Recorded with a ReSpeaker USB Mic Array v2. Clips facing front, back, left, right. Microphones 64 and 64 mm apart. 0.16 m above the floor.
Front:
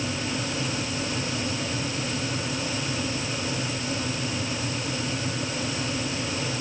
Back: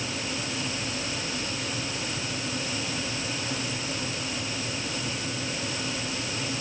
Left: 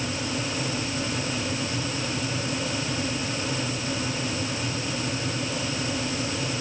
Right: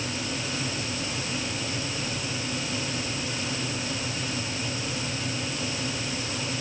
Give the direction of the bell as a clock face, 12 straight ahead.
I don't hear a bell.